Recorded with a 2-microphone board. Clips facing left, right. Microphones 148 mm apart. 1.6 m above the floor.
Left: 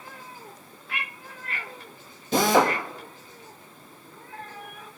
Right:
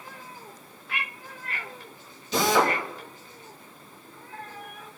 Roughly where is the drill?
Left.